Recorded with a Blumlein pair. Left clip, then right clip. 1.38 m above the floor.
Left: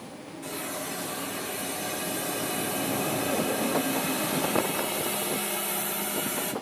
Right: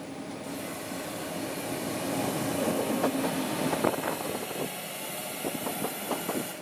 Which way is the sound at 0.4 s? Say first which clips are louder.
Left 6 dB; 55° left.